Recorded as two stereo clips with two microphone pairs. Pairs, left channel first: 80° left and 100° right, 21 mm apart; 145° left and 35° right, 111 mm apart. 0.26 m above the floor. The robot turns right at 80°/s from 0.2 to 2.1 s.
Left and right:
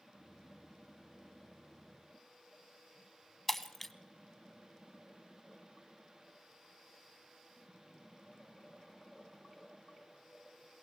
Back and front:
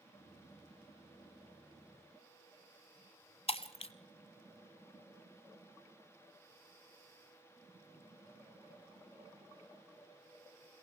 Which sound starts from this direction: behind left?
Breaking glass, at 3.5 s.